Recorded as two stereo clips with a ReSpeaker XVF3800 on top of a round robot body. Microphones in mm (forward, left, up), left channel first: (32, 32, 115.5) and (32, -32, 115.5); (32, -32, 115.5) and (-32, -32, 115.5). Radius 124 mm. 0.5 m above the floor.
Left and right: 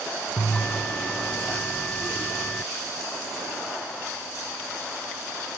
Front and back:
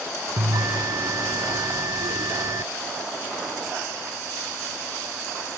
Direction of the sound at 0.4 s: 165° left.